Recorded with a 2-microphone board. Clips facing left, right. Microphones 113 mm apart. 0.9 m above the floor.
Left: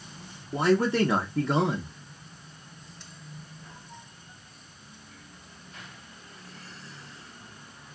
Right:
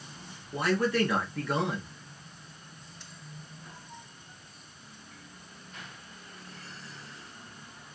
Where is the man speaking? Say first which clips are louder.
Left 4 dB; 25° left (ahead or behind), 0.8 m.